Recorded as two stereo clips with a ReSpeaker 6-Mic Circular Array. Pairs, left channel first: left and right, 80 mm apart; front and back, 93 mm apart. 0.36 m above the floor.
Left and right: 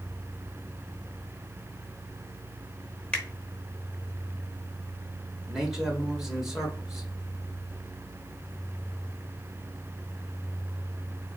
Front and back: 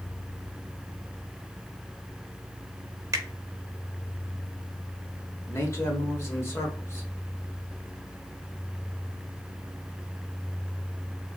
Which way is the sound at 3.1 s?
150° left.